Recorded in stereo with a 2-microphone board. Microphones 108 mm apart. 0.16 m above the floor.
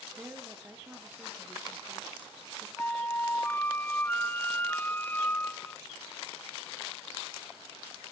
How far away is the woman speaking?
About 3 m.